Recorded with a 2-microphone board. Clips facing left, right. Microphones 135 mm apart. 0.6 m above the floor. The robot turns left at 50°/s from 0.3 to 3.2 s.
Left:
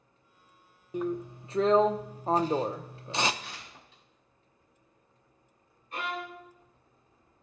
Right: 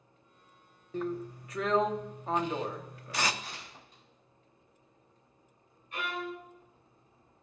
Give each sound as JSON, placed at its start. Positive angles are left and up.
{"t": 0.9, "sound": "a drill", "azimuth_deg": 155, "distance_m": 0.5}
{"t": 3.4, "sound": "tearing paper", "side_deg": -45, "distance_m": 4.5}
{"t": 5.9, "sound": "a violin", "side_deg": 35, "distance_m": 2.5}